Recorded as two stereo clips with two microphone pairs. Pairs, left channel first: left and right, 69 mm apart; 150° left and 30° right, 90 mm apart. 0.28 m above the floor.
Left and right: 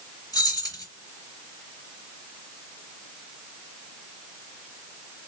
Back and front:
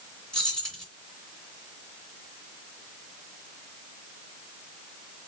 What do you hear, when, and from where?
0.3 s keys jangling: 75° left, 2.5 m